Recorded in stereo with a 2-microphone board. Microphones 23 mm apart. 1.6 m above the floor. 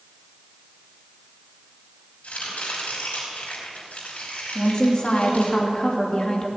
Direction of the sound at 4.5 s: 35° left (ahead or behind).